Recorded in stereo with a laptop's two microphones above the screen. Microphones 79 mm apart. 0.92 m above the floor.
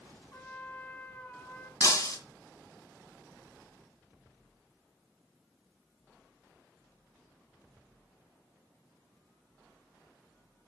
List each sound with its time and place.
0.3 s a trumpet: 25° left (ahead or behind), 3.5 m
1.8 s breaking glass: 45° left (ahead or behind), 2.5 m